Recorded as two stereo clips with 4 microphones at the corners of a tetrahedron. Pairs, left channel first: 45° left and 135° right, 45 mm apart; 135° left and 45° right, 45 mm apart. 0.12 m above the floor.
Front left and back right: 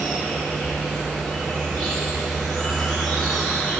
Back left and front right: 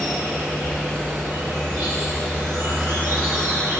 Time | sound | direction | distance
0.0 | an insect | 40° right | 4 m